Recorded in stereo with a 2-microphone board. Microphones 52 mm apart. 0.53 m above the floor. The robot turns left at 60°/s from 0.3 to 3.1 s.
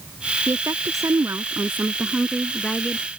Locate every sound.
0.5 s a woman speaking: 60° right; by 3.1 s 140° left